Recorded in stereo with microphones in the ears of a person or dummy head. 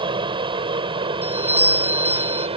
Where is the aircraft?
25° right (ahead or behind); by 2.6 s 30° right (ahead or behind).